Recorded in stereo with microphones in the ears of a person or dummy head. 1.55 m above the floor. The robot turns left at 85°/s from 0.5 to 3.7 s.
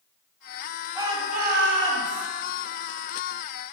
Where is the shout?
15° right, 2.5 m; by 2.3 s 125° right, 2.5 m.